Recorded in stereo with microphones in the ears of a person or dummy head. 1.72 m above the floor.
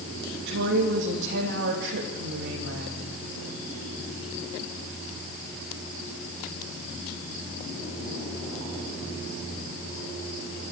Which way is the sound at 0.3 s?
55° right (ahead or behind).